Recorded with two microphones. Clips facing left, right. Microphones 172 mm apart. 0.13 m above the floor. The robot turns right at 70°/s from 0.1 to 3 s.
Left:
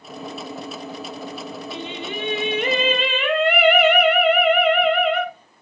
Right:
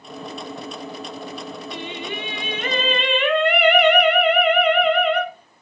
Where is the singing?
30° left (ahead or behind), 0.8 m; by 5.3 s 5° left (ahead or behind), 0.8 m.